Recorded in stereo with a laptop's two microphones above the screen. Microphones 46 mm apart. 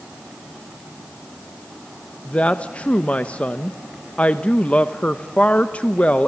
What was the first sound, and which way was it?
A woman speaking, 30° left (ahead or behind).